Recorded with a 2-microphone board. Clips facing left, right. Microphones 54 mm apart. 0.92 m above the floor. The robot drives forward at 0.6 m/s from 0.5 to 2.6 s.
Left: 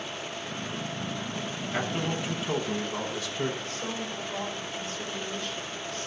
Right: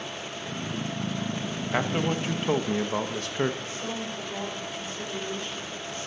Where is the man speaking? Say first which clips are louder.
Right 4 dB; 40° right (ahead or behind), 1.0 m; by 3.6 s 50° right (ahead or behind), 0.8 m.